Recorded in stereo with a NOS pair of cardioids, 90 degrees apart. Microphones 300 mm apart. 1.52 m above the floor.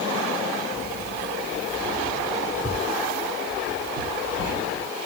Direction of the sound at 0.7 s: 10° left.